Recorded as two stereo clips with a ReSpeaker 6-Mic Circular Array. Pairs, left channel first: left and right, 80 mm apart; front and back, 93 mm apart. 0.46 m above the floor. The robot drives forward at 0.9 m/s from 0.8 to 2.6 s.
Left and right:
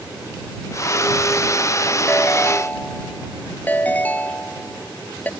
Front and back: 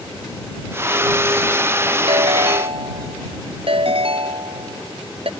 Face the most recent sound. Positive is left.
turn(degrees=160)